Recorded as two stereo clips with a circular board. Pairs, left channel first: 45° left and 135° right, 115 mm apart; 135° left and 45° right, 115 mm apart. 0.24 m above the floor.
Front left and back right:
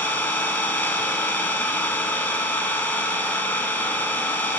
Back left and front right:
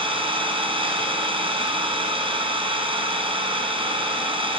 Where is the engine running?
25° right, 2.5 m.